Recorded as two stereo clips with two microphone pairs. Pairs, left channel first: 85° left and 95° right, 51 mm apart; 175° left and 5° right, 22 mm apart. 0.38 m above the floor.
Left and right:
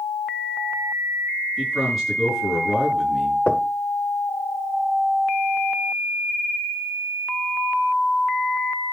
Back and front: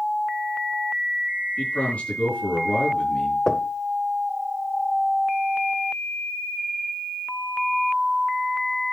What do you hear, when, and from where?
1.6 s a man speaking: 175° left, 6.5 m
3.5 s knocking: 130° left, 0.8 m